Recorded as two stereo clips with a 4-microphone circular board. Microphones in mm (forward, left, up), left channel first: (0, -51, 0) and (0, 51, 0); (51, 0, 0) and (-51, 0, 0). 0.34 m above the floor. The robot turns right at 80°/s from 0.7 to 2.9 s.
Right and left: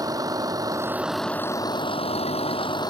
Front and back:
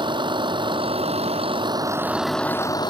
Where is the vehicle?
145° left; by 2.9 s 40° right.